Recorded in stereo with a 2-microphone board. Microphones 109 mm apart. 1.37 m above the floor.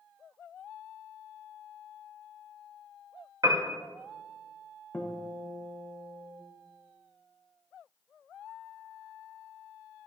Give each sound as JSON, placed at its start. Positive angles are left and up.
{"t": 3.4, "sound": "a piano", "side_deg": -35, "distance_m": 1.1}
{"t": 4.9, "sound": "a guitar", "side_deg": 15, "distance_m": 1.0}